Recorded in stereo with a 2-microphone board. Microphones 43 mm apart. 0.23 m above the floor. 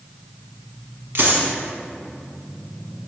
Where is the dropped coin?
60° right (ahead or behind), 0.7 m.